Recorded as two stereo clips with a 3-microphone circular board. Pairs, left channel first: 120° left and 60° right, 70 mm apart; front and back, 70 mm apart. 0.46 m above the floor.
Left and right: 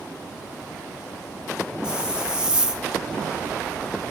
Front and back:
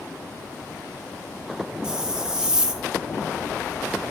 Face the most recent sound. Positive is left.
turn(degrees=-115)